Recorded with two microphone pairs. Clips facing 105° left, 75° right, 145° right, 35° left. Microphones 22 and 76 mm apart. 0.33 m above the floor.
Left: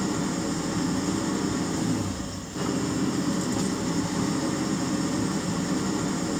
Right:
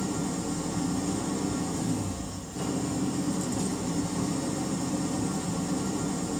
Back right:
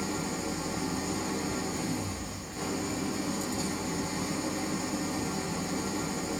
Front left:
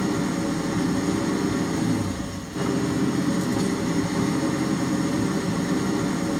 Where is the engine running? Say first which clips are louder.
Left 3 dB, front left 9 dB; 55° left, 2.5 m.